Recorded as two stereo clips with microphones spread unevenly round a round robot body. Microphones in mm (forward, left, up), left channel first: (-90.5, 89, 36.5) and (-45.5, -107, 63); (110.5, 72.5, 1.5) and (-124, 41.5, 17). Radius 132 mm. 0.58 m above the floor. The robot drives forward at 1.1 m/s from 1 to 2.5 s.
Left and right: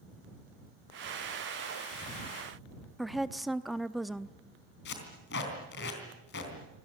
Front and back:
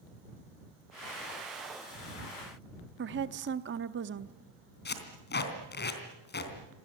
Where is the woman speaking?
175° right, 0.7 m.